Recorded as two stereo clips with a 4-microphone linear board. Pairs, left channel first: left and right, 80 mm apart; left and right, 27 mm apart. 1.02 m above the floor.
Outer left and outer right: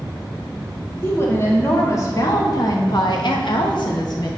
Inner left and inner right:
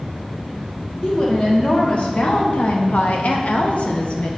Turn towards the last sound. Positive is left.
turn(degrees=50)  # may be behind; listen again after turning